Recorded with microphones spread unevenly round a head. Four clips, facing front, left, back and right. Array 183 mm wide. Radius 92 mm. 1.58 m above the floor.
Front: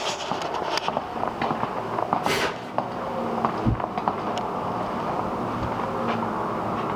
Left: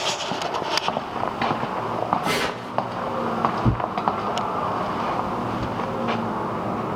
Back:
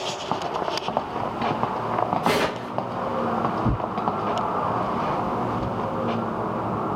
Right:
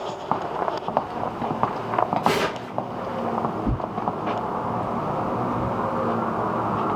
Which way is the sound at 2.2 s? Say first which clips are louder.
Right 2 dB, back 3 dB; 170° right.